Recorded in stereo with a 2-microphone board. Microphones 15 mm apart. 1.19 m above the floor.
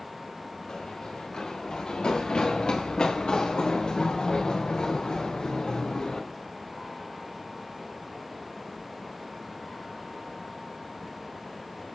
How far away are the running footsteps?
About 9.5 m.